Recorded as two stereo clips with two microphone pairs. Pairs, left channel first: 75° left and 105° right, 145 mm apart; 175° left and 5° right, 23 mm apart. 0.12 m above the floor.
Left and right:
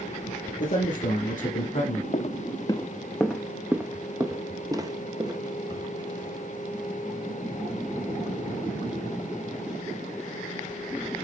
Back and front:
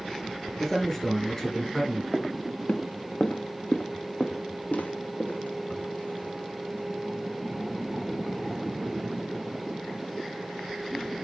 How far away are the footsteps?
About 0.7 m.